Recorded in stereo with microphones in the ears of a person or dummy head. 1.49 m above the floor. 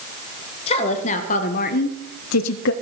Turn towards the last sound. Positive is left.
turn(degrees=55)  # may be behind; listen again after turning